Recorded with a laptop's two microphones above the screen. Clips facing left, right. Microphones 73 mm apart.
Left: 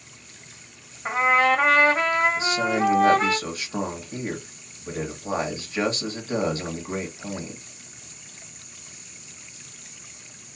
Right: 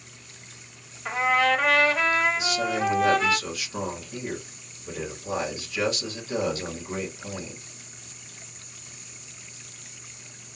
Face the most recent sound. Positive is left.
turn(degrees=35)  # may be behind; listen again after turning